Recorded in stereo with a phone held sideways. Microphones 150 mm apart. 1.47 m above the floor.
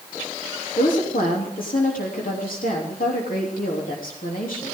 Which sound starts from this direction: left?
A woman speaking, at 0.8 s.